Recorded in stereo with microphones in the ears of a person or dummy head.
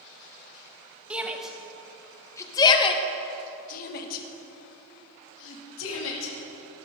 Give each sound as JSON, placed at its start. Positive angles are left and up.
{"t": 1.1, "sound": "a shout", "side_deg": -10, "distance_m": 1.6}